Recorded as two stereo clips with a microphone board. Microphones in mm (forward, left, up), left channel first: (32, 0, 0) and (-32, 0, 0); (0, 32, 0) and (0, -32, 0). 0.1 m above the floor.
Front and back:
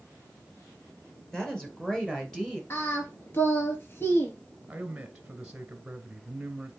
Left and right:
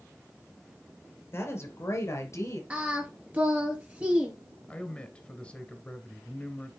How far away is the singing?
About 2 m.